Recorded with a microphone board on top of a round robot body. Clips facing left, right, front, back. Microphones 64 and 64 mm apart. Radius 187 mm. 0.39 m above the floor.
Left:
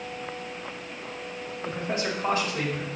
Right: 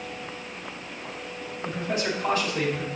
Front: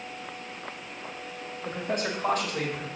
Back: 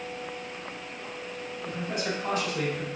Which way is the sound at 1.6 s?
40° left.